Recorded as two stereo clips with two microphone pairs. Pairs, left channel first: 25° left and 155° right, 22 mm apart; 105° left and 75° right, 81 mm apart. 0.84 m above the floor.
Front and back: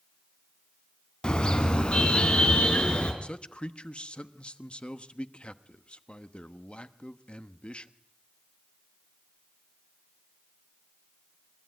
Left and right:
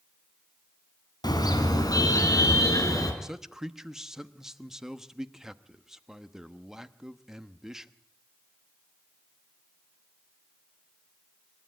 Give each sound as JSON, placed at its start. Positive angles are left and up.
{"t": 1.2, "sound": "a car horn", "azimuth_deg": 75, "distance_m": 2.5}
{"t": 3.2, "sound": "a man speaking", "azimuth_deg": 10, "distance_m": 1.0}